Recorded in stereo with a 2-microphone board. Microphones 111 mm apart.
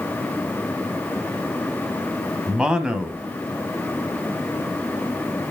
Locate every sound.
2.5 s a man speaking: 10° right (ahead or behind), 1.3 m